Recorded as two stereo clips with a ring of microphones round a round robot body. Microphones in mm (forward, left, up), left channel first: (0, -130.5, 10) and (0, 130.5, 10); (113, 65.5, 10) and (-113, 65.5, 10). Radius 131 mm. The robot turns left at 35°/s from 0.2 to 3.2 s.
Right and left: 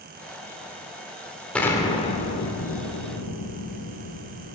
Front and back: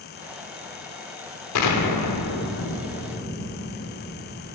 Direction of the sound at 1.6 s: 5° right.